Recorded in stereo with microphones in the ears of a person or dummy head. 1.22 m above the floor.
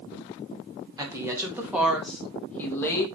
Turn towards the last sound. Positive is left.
turn(degrees=10)  # may be behind; listen again after turning